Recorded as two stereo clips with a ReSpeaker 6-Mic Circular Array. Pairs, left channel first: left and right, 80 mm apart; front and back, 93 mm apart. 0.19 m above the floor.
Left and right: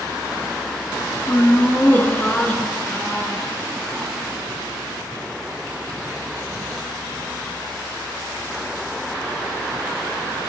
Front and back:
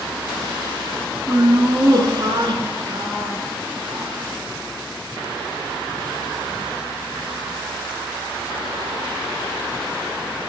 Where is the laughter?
140° left, 2.5 m; by 4.1 s 175° left, 3.5 m.